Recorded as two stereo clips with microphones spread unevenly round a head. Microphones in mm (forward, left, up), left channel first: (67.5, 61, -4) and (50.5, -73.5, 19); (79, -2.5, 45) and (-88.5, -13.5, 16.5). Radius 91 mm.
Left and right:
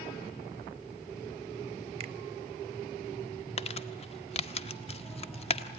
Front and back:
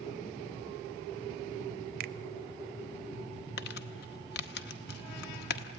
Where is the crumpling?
35° left, 1.0 m.